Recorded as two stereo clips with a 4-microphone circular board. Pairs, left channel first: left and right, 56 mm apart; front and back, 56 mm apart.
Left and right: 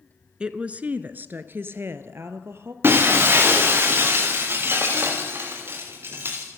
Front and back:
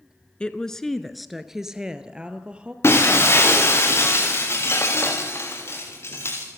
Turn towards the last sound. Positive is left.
turn(degrees=-45)